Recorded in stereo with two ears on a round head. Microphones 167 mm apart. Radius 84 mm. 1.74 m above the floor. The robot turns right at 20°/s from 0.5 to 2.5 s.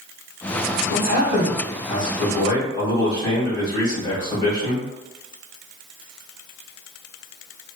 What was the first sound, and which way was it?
A man speaking, 125° left.